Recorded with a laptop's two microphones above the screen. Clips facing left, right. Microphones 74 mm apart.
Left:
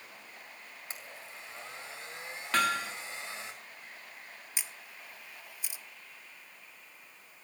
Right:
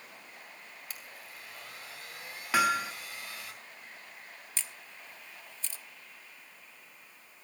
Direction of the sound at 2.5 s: 10° right (ahead or behind).